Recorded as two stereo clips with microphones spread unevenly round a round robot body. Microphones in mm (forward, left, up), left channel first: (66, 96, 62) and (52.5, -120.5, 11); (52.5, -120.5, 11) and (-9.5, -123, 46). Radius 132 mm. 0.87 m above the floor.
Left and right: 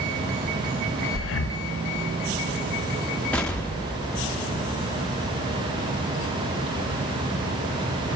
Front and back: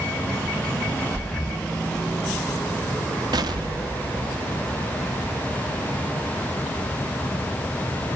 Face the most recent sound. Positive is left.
turn(degrees=170)